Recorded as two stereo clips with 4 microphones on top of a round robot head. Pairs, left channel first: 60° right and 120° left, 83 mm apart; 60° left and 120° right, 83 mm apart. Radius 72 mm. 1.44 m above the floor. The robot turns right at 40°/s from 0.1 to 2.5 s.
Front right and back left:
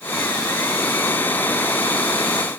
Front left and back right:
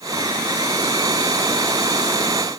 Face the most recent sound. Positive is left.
No sound to turn to.